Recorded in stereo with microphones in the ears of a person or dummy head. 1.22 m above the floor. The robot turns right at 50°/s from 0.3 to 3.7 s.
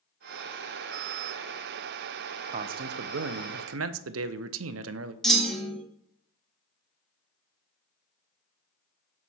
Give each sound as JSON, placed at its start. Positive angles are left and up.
{"t": 2.5, "sound": "a man speaking", "azimuth_deg": -145, "distance_m": 0.5}
{"t": 5.2, "sound": "a clunk", "side_deg": 0, "distance_m": 0.9}